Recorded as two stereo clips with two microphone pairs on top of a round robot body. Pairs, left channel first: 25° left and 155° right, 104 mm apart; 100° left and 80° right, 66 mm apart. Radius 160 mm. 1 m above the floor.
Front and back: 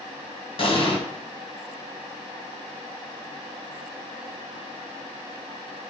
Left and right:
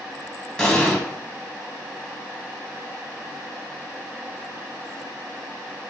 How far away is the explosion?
About 1.3 m.